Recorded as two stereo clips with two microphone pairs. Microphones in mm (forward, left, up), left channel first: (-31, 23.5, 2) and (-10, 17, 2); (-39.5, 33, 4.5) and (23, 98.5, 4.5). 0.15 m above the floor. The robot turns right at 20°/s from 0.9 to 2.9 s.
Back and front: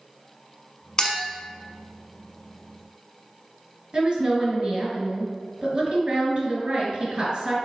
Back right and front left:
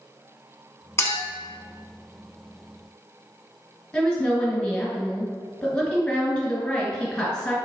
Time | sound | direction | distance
1.0 | a clink | 170° right | 0.7 m
3.9 | a woman speaking | 55° right | 1.5 m